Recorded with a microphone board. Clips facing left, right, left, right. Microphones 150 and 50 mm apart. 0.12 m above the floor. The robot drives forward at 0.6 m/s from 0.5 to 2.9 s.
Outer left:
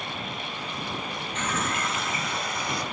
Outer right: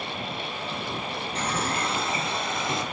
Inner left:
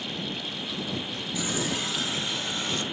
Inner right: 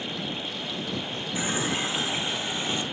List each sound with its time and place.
1.4 s a running tap: 35° right (ahead or behind), 1.5 m; by 2.8 s 25° right (ahead or behind), 2 m